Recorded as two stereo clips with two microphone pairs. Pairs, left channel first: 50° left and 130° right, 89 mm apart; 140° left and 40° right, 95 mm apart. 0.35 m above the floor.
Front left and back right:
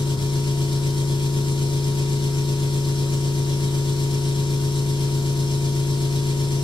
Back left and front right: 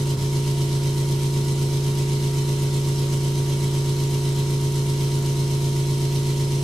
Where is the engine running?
55° left, 2.5 m.